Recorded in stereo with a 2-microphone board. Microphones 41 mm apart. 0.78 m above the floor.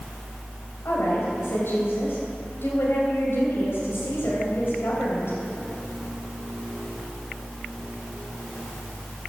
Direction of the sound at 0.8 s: 65° left (ahead or behind).